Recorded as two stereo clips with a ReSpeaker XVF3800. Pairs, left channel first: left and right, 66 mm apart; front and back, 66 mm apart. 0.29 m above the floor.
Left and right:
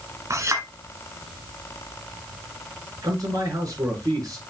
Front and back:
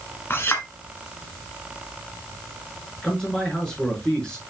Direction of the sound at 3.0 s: 75° right.